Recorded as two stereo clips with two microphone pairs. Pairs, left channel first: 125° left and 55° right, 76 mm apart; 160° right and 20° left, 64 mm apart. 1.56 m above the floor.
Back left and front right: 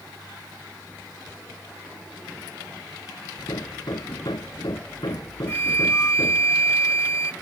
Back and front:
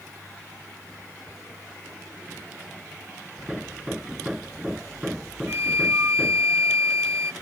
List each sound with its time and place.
3.4 s hammering: 100° left
5.5 s a flute: 70° left